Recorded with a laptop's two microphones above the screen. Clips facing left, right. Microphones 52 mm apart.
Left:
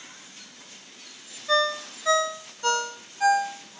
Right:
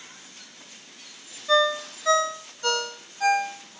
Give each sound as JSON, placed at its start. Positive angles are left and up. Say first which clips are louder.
{"t": 1.5, "sound": "a ringtone", "louder": "right 2 dB", "side_deg": 10, "distance_m": 1.1}